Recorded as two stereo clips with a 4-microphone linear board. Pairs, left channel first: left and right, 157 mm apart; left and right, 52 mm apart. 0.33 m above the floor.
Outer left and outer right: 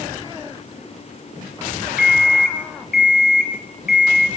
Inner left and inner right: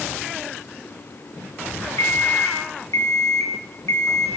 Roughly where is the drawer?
No drawer in this recording.